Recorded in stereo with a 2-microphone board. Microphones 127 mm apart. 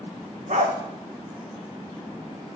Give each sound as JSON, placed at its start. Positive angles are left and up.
{"t": 0.5, "sound": "a dog barking", "side_deg": -65, "distance_m": 2.5}